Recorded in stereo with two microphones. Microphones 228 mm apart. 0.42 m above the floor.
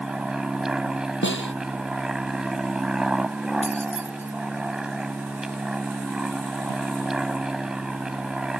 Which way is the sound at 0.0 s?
5° right (ahead or behind).